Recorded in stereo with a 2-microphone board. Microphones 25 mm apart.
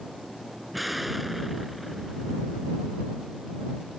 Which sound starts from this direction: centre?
An explosion, at 0.7 s.